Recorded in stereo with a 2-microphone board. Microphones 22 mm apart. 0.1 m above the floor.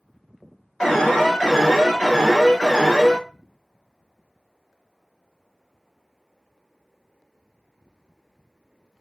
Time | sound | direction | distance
0.8 | an alarm | 25° left (ahead or behind) | 2 m